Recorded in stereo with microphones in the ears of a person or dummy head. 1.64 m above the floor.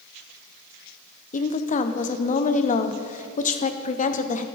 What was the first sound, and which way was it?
A woman speaking, 30° left (ahead or behind).